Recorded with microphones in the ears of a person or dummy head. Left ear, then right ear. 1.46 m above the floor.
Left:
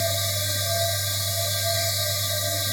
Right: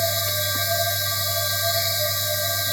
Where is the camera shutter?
I don't hear a camera shutter.